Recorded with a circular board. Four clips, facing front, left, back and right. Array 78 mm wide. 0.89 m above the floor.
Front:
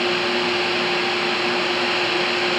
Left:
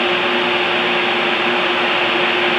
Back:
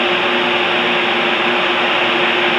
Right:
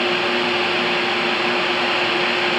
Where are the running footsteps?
No running footsteps in this recording.